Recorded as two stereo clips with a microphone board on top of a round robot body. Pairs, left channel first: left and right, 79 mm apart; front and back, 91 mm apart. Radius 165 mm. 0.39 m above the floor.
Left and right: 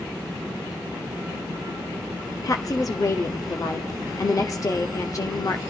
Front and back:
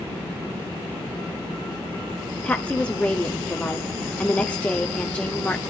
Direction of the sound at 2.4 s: 70° left.